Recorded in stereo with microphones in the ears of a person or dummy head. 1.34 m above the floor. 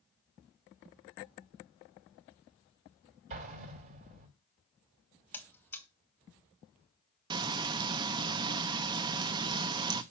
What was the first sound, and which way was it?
An explosion, 40° right (ahead or behind).